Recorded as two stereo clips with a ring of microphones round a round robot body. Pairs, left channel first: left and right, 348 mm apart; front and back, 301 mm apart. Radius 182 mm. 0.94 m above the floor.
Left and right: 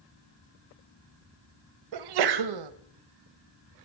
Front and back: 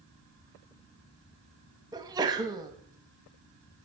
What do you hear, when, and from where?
1.9 s a sneeze: 100° right, 1.0 m